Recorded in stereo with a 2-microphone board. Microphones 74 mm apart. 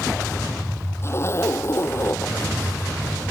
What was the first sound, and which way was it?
A zipper, 35° left (ahead or behind).